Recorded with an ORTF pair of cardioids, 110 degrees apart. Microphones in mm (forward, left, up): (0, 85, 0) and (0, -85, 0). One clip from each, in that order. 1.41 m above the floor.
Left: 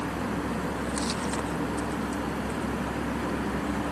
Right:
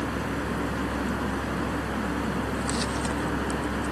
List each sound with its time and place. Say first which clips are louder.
0.0 s a fan: right 1 dB; 25° right